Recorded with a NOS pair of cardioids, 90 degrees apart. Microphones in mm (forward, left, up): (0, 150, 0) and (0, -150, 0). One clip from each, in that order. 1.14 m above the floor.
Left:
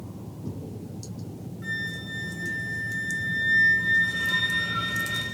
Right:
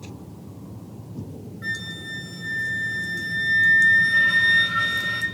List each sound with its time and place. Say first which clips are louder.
1.6 s a flute: right 2 dB; 40° right, 8 m